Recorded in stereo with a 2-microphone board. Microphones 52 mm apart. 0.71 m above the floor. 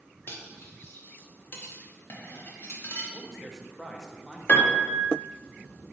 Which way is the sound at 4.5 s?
35° left (ahead or behind).